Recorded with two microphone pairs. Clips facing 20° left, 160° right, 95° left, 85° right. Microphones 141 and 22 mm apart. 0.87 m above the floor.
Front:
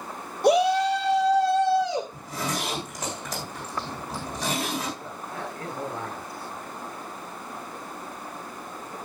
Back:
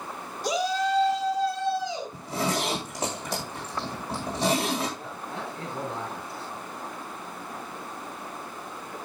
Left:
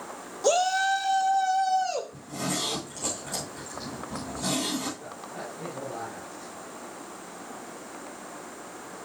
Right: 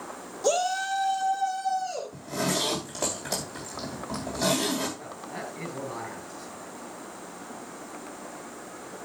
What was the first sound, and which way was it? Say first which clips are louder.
A shout: front 7 dB, left 3 dB; 10° left.